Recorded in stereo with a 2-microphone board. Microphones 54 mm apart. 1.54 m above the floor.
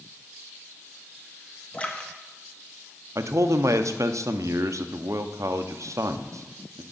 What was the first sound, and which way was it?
A splash, 20° left (ahead or behind).